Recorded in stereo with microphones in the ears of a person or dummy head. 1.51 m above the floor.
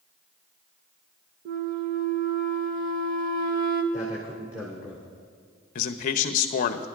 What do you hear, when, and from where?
1.4 s a flute: 50° right (ahead or behind), 0.9 m
3.9 s a man speaking: 10° right (ahead or behind), 2 m
5.8 s a man speaking: 45° left (ahead or behind), 0.7 m